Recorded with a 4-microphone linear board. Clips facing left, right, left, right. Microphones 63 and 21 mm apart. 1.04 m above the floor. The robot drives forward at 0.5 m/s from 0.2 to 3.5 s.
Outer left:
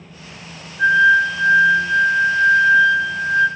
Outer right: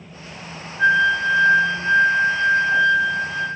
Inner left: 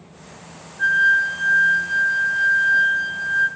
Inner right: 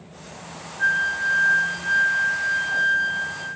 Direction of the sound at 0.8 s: 15° left (ahead or behind).